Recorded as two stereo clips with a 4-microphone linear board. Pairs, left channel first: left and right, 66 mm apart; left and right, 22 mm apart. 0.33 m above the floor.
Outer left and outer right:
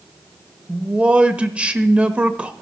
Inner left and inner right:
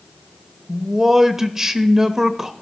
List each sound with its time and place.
0.7 s a man speaking: 20° right (ahead or behind), 0.9 m